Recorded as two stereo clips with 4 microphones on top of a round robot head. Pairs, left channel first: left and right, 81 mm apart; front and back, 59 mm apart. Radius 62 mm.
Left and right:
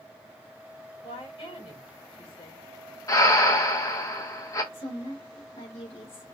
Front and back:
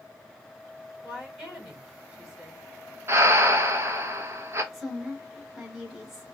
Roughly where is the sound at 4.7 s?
Left.